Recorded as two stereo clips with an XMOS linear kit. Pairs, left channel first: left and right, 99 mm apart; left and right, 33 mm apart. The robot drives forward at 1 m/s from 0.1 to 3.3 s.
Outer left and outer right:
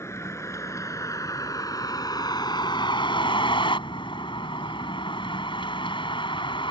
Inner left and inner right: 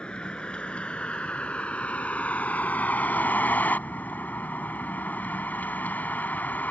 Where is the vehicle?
30° left (ahead or behind); by 6.7 s 60° left (ahead or behind).